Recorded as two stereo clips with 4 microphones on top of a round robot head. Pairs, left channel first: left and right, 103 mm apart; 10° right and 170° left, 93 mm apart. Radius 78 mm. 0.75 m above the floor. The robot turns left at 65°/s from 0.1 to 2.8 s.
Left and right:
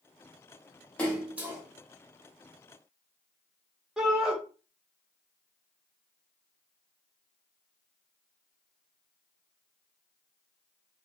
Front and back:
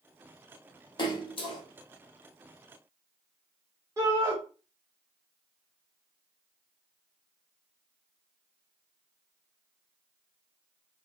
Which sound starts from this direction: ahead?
A splash, at 1.0 s.